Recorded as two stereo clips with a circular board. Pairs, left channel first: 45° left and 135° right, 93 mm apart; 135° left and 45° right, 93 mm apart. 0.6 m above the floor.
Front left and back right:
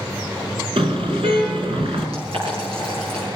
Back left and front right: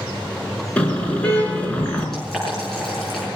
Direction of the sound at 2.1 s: 140° right.